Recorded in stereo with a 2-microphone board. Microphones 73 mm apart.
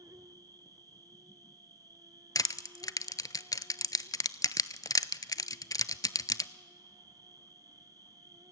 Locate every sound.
0.0 s an insect: 60° right (ahead or behind), 0.8 m
2.4 s crushing: 55° left (ahead or behind), 0.6 m